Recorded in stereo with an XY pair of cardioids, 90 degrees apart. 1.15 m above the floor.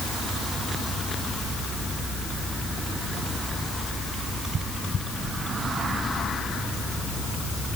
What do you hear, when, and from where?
Only background noise.